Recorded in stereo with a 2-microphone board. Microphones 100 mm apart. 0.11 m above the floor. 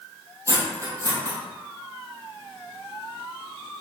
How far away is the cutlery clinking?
About 1.9 m.